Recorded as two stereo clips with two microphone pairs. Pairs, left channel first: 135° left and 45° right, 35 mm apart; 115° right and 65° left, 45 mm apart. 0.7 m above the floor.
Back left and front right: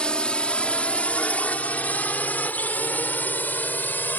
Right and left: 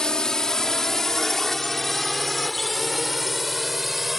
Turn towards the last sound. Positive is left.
turn(degrees=150)